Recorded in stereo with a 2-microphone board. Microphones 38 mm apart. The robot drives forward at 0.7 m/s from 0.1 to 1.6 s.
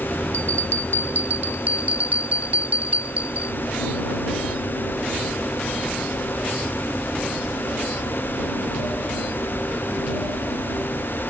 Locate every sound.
0.3 s a bell: 70° right (ahead or behind); by 3.5 s 45° right (ahead or behind)